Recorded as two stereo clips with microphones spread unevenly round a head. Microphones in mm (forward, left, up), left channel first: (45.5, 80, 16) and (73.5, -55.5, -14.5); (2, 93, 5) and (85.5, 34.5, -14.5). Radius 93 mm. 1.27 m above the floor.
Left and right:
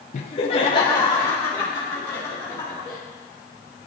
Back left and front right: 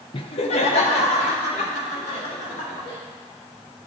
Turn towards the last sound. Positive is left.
turn(degrees=-170)